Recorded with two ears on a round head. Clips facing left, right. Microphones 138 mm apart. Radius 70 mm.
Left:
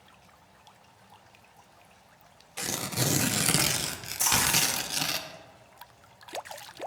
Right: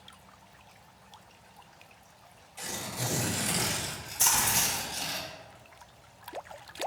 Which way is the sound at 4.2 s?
10° left (ahead or behind).